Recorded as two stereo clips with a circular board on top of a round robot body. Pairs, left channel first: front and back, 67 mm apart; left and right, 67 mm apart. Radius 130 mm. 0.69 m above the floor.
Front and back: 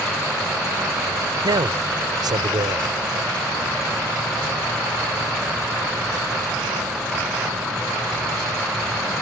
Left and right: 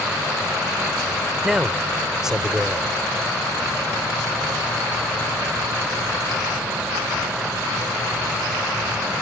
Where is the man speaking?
175° right.